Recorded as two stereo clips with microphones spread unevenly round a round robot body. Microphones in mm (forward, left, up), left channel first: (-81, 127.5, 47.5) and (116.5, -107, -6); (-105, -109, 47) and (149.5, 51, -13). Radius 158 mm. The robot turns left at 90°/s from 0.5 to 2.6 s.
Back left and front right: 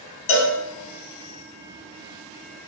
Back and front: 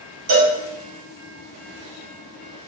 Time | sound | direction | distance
0.3 | a cowbell | 95° left | 0.6 m